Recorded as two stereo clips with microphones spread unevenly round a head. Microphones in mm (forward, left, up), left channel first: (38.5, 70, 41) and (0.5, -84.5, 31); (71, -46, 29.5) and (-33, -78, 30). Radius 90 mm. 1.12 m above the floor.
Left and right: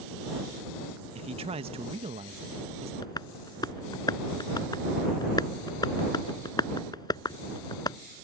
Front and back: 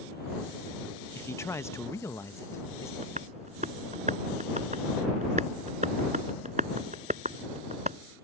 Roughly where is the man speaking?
Ahead right.